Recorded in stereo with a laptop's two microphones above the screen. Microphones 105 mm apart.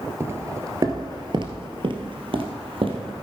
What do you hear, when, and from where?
0.2 s footsteps: 25° right (ahead or behind), 1.4 m; by 3.1 s 60° right (ahead or behind), 2 m